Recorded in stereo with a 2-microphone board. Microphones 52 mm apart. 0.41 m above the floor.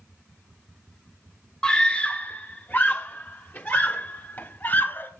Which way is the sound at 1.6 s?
15° left (ahead or behind).